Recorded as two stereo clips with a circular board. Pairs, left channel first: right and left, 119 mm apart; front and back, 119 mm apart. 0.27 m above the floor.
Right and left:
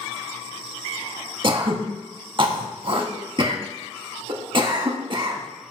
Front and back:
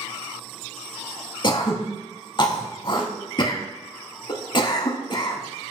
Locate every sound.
1.4 s throat clearing: 50° left, 0.6 m